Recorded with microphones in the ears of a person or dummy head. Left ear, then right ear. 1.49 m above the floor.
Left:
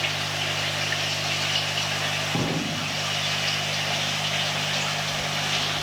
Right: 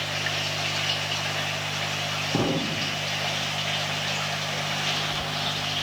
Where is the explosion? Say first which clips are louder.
Right 1 dB; 50° right (ahead or behind), 1.1 m.